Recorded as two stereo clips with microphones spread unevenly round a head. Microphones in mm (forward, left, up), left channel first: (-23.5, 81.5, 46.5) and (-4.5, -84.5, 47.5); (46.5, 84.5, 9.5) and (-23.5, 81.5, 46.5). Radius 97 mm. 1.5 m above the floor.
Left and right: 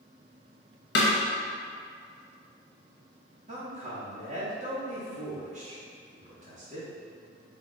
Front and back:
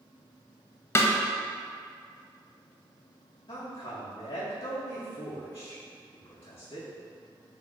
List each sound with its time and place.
0.9 s a snare drum: 65° left, 0.5 m
3.5 s a man speaking: 40° right, 0.6 m